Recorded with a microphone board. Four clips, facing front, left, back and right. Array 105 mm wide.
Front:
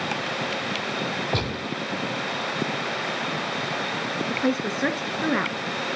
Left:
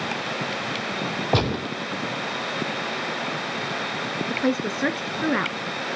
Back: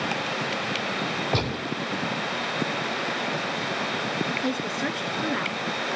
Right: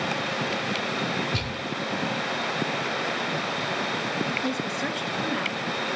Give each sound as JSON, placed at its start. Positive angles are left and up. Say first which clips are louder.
{"t": 1.3, "sound": "a gunshot", "louder": "left 8 dB, even", "azimuth_deg": 95, "distance_m": 0.7}
{"t": 4.3, "sound": "a woman speaking", "louder": "left 4 dB, front 3 dB", "azimuth_deg": 60, "distance_m": 1.6}